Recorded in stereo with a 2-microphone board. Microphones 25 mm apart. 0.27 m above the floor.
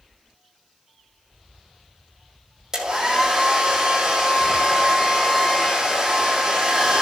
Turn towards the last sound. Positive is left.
turn(degrees=-25)  # may be behind; listen again after turning